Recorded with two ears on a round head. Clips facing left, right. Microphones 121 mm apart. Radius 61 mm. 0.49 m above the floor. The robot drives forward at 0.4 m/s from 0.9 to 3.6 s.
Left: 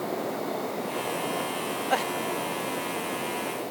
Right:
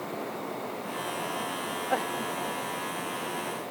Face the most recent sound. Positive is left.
No sound to turn to.